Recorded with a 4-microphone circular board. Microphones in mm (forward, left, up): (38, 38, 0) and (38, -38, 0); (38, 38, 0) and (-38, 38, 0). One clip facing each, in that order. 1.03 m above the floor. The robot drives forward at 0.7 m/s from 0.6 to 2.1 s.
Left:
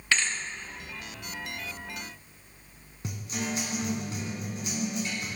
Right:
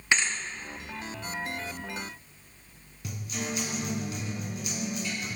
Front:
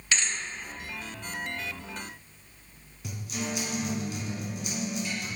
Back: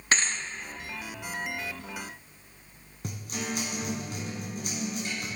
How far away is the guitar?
About 2 m.